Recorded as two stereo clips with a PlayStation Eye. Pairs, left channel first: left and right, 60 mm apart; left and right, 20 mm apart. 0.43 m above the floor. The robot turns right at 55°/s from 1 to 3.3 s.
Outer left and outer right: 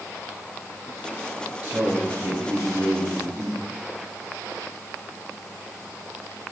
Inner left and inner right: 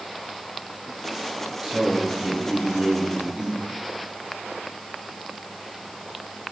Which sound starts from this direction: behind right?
A man speaking, at 1.6 s.